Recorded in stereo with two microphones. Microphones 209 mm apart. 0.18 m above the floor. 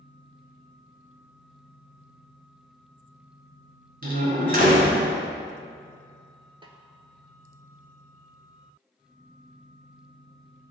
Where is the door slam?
45° right (ahead or behind), 1.8 m.